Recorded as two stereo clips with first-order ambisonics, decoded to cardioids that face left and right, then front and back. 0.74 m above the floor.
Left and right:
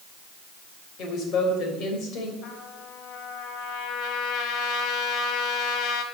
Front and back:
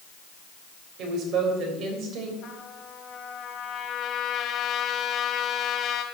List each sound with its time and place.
1.0 s a woman speaking: 140° left, 3.5 m
2.4 s a trumpet: 55° left, 1.4 m